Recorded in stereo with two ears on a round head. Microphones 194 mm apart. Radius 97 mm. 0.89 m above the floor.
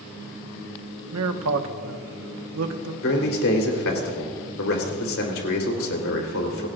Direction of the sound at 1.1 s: 75° right (ahead or behind).